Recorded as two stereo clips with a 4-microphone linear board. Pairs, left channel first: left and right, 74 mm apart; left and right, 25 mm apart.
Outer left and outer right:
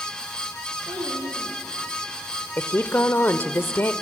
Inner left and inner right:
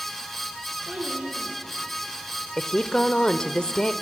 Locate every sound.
0.9 s a child speaking: 70° right (ahead or behind), 3.5 m; by 2.5 s 50° right (ahead or behind), 4.5 m
2.6 s a woman speaking: 30° left (ahead or behind), 1.0 m